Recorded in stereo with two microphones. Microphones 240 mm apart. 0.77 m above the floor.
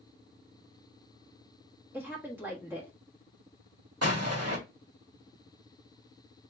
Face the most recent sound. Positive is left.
turn(degrees=-90)